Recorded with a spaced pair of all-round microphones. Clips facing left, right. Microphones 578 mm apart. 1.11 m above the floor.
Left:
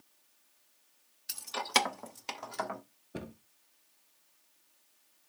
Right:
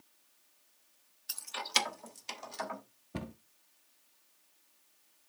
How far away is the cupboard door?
About 0.6 m.